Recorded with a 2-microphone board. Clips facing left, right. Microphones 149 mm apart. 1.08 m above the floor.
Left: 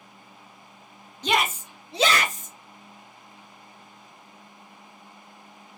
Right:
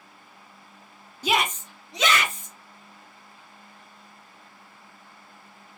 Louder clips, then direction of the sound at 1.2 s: Even; 10° right (ahead or behind).